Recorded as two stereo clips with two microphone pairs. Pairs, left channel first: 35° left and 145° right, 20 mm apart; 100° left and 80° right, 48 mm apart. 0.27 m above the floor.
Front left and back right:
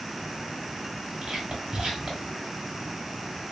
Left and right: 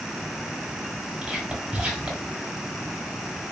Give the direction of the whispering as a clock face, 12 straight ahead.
5 o'clock.